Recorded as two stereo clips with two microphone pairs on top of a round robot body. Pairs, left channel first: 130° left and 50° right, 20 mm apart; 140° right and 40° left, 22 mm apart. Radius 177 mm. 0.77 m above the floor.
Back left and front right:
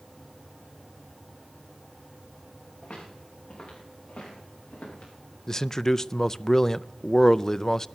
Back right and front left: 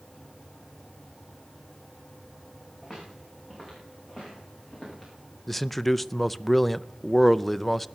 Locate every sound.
2.8 s footsteps: 125° left, 6 m; by 5.1 s 120° left, 8 m
5.5 s a man speaking: 125° left, 0.6 m